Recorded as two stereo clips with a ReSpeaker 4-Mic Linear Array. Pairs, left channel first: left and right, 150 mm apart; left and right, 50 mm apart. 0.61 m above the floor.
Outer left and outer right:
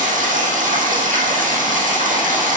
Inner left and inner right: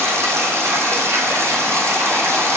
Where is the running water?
60° right (ahead or behind), 3 m.